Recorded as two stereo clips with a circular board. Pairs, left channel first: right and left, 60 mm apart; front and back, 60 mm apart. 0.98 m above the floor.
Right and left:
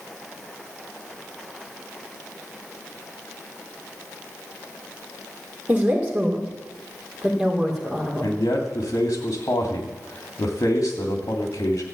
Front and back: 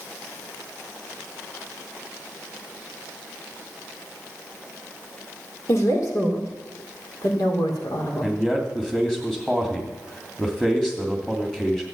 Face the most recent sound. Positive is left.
turn(degrees=-80)